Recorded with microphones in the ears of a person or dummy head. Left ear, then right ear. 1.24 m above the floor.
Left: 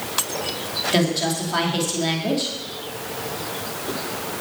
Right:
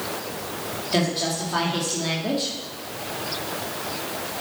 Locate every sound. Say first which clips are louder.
0.9 s a woman speaking: left 1 dB; 5° left (ahead or behind), 2.5 m